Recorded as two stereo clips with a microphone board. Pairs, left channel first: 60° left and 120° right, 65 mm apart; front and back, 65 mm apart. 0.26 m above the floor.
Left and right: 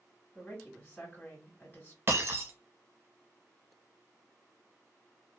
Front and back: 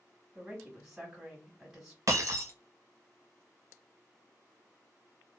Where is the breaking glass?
165° right, 0.9 m.